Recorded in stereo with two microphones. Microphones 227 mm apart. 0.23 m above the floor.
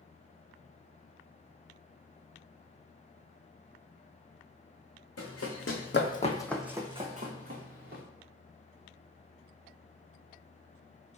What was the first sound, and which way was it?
Running footsteps, 80° left.